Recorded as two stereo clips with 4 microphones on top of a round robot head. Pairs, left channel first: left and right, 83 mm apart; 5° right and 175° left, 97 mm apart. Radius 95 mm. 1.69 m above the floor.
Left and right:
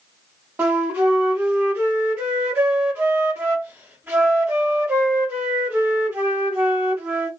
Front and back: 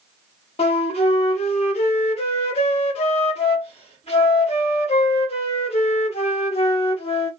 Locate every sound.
0.6 s a flute: 20° right, 0.7 m